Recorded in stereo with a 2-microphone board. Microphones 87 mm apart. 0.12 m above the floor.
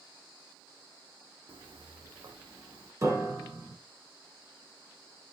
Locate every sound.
1.5 s footsteps: 80° right, 0.5 m; by 2.9 s 60° right (ahead or behind), 1.2 m
3.0 s a piano: 35° right (ahead or behind), 1.3 m